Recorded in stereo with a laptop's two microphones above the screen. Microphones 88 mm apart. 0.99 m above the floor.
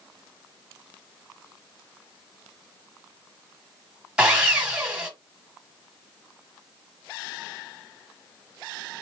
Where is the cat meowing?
I don't hear a cat meowing.